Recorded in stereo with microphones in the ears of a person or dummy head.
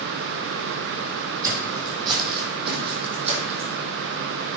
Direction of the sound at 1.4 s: 20° right (ahead or behind).